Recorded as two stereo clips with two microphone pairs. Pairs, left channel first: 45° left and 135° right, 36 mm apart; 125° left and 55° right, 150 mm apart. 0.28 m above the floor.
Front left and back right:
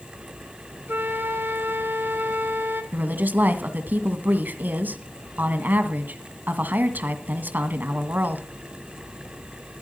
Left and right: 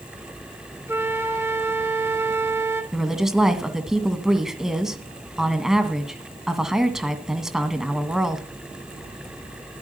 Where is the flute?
130° right, 1.1 m.